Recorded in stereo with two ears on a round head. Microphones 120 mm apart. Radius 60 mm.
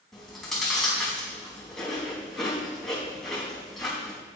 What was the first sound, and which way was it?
Chewing, centre (ahead or behind).